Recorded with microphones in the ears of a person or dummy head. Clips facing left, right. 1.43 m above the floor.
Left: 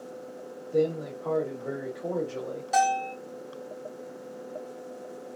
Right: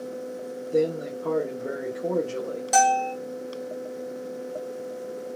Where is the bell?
80° right, 1.7 m.